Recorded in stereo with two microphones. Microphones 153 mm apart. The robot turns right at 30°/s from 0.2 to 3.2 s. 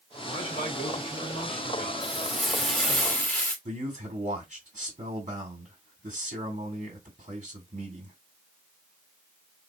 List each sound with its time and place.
0.2 s a man speaking: 45° left, 1.9 m; by 3.0 s 130° left, 1.9 m
2.0 s frying: 5° right (ahead or behind), 1.1 m; by 3.5 s 10° left (ahead or behind), 1.1 m
3.6 s a man speaking: 45° right (ahead or behind), 1.8 m